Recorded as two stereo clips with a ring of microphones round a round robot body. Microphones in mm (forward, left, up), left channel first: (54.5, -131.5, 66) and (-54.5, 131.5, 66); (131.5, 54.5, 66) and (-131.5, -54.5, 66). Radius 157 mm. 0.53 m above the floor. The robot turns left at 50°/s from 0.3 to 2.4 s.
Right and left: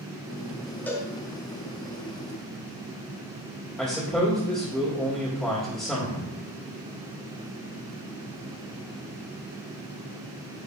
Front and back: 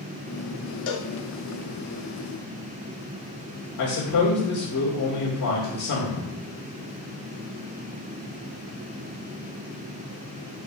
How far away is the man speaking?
About 2 m.